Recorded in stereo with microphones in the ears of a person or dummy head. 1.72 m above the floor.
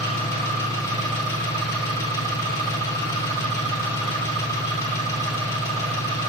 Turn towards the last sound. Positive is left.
turn(degrees=20)  # may be behind; listen again after turning